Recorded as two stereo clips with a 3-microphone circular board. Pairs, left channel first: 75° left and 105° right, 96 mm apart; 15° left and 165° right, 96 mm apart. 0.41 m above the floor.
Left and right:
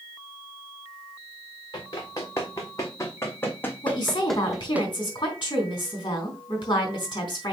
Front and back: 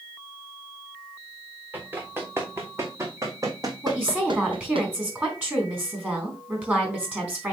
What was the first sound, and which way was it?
Running footsteps, 125° left.